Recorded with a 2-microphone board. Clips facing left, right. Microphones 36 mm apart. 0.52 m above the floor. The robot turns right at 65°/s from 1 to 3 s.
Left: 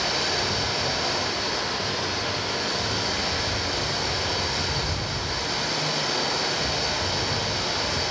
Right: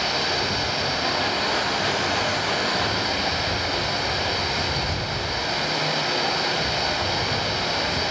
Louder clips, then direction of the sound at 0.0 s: Right 2 dB; 160° right.